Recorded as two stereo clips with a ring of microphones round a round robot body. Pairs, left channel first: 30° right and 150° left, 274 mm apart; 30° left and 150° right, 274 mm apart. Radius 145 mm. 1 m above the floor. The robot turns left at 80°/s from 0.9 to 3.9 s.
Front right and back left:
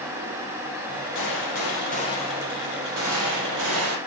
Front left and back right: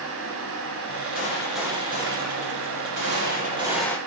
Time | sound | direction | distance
1.1 | a gunshot | 30° right | 4.5 m